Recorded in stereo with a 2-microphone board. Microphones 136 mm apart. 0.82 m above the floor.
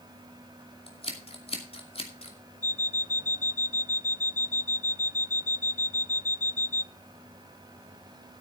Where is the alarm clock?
70° left (ahead or behind), 0.5 m.